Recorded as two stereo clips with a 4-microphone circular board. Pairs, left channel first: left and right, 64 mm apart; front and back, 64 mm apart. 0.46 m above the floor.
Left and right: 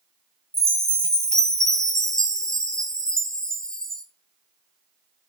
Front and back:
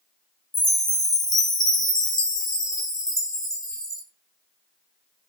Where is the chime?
10° left, 2 m.